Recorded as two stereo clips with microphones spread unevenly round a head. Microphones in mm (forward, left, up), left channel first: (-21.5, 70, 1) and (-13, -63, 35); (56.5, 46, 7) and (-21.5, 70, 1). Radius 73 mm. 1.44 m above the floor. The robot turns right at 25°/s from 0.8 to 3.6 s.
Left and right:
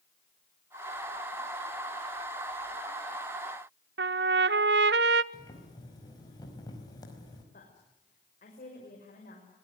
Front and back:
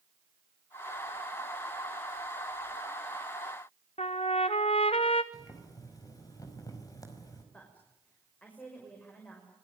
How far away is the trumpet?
About 0.7 m.